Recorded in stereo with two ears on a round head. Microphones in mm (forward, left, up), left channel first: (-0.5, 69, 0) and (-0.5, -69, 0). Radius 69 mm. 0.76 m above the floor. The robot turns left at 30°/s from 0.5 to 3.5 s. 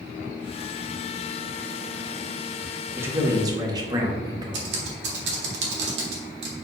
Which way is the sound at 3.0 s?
15° right (ahead or behind).